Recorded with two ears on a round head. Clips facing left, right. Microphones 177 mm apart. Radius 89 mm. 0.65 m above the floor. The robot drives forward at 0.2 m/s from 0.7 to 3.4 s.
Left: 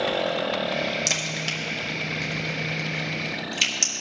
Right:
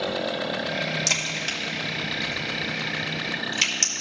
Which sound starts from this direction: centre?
A crack, at 1.1 s.